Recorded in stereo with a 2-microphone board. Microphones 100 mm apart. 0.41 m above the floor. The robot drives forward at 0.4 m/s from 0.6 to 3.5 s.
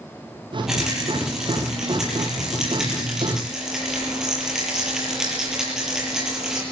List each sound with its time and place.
0.7 s a rattle: 5° right (ahead or behind), 8.5 m